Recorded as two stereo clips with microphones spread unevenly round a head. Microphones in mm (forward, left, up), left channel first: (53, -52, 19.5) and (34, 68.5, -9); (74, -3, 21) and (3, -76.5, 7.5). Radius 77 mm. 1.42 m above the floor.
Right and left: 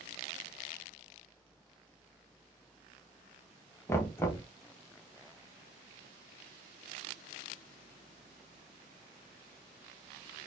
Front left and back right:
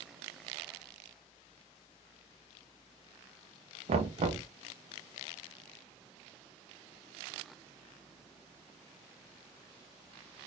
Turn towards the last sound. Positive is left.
turn(degrees=-140)